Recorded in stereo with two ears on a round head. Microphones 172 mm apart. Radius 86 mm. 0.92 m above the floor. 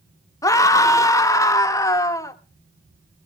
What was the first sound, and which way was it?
A scream, 15° left (ahead or behind).